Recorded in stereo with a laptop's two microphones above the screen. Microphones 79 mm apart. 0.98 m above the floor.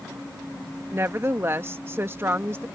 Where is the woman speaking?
30° right (ahead or behind).